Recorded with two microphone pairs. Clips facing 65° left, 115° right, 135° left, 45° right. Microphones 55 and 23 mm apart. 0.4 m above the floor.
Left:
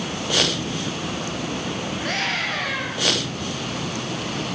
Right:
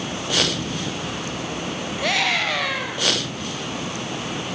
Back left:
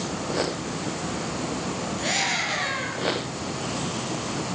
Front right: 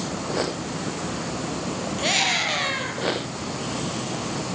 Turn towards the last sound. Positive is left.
turn(degrees=-110)